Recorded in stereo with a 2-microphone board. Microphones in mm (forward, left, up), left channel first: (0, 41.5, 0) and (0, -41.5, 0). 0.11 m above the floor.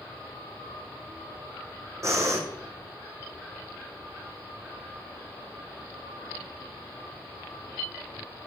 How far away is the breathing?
About 1.3 m.